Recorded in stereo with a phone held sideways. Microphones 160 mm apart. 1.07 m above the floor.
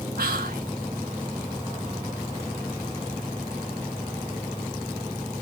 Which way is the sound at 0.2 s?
70° right (ahead or behind).